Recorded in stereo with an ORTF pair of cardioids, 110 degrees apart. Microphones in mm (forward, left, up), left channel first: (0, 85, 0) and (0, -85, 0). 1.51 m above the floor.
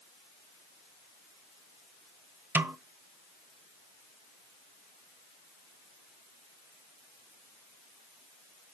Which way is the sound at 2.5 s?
10° right.